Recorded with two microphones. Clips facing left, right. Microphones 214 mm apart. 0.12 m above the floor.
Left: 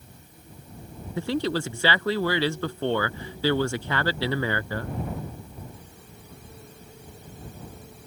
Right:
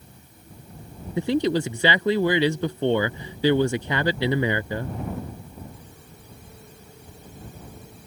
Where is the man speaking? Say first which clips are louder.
Right 4 dB; 20° right (ahead or behind).